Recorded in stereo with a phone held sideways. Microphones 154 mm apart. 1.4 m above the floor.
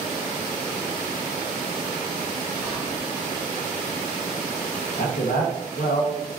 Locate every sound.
2.6 s whispering: 10° right (ahead or behind), 1.8 m
5.0 s a man speaking: 75° left (ahead or behind), 0.8 m